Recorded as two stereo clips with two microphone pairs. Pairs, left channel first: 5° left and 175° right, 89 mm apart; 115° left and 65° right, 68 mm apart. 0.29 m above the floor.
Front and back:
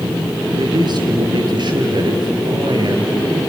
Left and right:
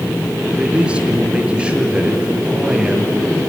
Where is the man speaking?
140° right, 5 m.